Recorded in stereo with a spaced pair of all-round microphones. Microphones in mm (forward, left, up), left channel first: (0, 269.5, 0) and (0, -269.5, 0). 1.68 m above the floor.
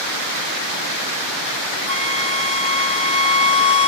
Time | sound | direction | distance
1.9 | a flute | 25° right (ahead or behind) | ?